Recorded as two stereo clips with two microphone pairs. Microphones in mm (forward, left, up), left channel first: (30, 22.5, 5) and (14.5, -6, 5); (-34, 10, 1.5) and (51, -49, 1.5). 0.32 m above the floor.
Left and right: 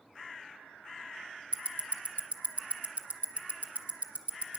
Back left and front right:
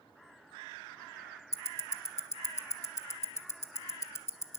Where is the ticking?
155° right, 1.0 m.